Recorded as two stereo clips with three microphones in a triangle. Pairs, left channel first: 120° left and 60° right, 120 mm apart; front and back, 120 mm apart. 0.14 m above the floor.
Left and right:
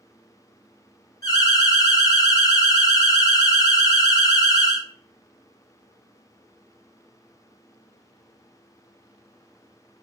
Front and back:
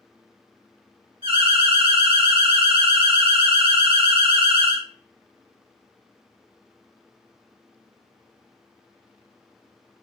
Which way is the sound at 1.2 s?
170° left.